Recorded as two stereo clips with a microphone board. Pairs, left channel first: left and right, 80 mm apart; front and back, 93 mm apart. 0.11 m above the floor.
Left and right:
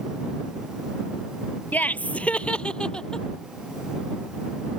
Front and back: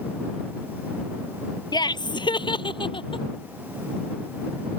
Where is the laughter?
25° left; by 3.2 s 10° left.